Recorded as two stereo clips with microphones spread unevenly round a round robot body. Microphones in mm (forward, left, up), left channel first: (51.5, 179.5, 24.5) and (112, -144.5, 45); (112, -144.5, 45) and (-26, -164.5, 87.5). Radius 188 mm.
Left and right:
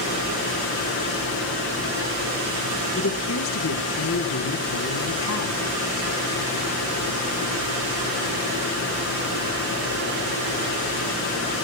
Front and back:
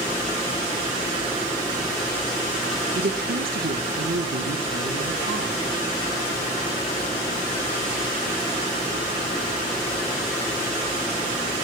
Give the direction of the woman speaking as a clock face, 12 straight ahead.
7 o'clock.